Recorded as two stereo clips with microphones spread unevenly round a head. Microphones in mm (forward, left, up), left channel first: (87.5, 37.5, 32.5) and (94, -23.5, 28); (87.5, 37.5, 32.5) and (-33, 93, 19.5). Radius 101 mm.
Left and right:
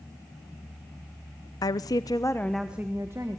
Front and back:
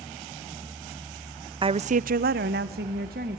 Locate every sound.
1.6 s a woman speaking: 100° left, 0.6 m; by 3.4 s 155° right, 1.5 m